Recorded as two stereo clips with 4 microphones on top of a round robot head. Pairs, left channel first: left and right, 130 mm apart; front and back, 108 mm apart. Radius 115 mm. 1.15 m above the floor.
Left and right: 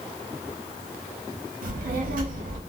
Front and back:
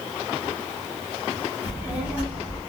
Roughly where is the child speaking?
Right.